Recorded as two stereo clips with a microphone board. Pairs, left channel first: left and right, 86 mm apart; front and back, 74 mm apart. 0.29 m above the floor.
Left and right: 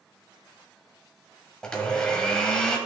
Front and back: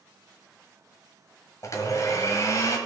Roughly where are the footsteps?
I don't hear footsteps.